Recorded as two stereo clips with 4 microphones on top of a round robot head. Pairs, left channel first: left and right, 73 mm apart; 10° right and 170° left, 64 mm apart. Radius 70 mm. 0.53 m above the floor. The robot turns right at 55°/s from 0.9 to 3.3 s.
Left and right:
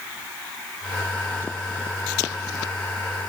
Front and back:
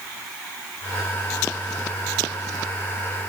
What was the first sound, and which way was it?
Only background noise.